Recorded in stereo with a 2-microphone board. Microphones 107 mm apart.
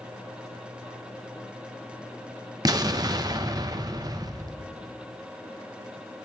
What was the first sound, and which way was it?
An explosion, 35° right (ahead or behind).